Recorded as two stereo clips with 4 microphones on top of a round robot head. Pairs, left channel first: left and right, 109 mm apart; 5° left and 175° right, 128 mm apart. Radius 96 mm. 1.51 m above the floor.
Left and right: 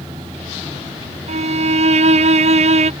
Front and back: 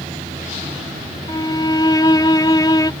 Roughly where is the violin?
Right.